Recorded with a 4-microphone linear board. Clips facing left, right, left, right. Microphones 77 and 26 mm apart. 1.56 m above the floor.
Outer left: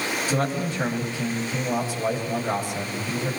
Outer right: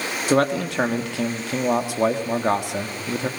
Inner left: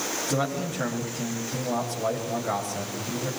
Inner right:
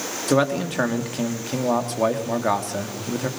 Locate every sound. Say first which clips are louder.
0.3 s a man speaking: outer right 9 dB, inner right 10 dB; 85° right, 3.5 m